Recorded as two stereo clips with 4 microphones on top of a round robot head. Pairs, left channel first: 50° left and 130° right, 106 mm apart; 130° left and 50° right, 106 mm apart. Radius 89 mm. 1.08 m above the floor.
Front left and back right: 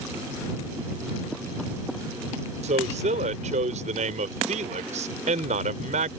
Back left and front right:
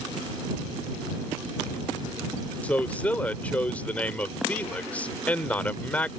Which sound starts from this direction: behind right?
A man speaking, at 2.6 s.